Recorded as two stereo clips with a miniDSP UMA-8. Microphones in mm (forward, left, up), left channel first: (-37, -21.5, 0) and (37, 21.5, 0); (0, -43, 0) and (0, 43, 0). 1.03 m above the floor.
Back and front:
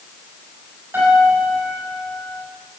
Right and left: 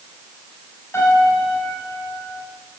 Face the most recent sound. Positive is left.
turn(degrees=-35)